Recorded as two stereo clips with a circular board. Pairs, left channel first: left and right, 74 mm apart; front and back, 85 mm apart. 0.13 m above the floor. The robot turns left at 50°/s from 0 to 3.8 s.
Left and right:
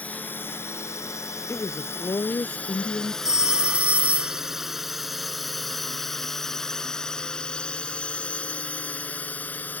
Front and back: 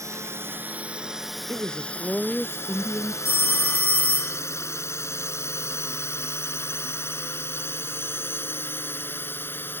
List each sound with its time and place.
0.0 s a drone: 155° left; by 9.8 s 45° left
1.5 s a woman speaking: 130° left; by 3.1 s 50° left
3.2 s a phone ringing: 15° right; by 4.4 s 45° right